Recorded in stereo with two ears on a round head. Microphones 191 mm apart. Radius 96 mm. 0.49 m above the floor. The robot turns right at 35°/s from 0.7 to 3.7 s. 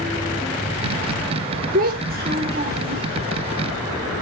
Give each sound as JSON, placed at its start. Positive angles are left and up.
{"t": 1.7, "sound": "a child speaking", "azimuth_deg": -110, "distance_m": 0.9}